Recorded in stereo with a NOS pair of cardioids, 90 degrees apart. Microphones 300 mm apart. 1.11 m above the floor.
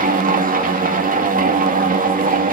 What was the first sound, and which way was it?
A machine running, 30° right.